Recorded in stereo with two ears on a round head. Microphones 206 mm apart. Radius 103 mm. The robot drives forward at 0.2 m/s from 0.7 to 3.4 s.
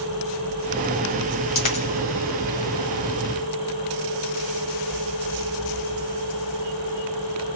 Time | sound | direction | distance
1.6 | a dropped coin | 30° left (ahead or behind) | 1.5 m